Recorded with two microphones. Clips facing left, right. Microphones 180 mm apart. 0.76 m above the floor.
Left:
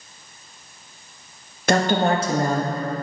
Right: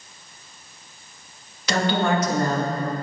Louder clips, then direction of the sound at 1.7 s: Left 3 dB; 50° left (ahead or behind).